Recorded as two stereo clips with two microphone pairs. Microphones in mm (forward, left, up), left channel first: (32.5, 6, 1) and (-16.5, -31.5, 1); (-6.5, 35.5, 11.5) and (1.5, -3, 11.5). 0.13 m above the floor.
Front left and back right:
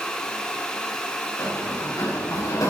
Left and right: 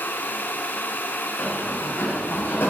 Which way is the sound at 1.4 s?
80° left.